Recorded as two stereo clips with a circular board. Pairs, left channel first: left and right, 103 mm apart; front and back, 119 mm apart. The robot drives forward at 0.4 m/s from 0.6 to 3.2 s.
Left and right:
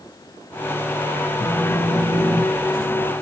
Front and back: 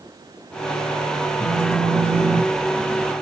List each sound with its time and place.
1.4 s a phone buzzing: 130° left, 1.6 m; by 3.0 s 150° left, 1.9 m